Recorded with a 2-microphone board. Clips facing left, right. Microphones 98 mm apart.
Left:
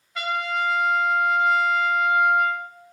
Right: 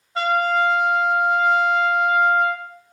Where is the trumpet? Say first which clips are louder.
Right 7 dB; 30° right (ahead or behind), 0.6 m.